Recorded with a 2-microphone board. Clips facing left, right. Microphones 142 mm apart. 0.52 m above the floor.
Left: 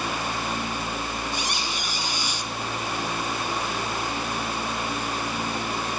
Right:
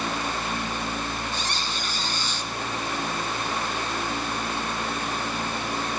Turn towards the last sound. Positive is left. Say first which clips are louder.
# left 1 dB
turn(degrees=10)  # may be behind; listen again after turning